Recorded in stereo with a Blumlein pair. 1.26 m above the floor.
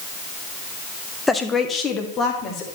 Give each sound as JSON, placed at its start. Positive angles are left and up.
{"t": 1.3, "sound": "a woman speaking", "azimuth_deg": 10, "distance_m": 0.9}